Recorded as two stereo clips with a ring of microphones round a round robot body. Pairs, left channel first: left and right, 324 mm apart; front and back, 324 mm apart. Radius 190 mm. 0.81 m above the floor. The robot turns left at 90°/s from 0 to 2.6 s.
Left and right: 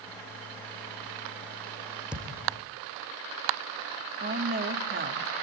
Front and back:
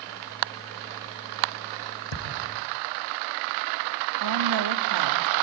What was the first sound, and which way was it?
A thud, straight ahead.